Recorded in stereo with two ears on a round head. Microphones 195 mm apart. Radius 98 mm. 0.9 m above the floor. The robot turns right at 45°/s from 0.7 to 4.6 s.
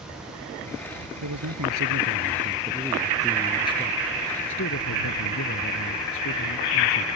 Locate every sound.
1.2 s a man speaking: 90° right; by 7.1 s 65° left